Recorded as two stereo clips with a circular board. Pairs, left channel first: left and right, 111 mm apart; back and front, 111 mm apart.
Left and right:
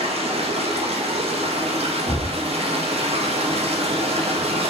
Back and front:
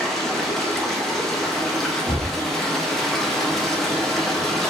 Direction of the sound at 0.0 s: 95° right.